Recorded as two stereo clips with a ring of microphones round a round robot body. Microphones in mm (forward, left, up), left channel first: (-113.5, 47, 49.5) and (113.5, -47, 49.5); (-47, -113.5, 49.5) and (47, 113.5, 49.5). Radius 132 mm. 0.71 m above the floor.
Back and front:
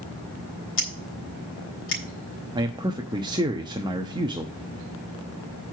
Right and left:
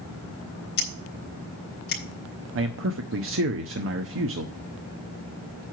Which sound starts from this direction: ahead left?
A man speaking, at 2.5 s.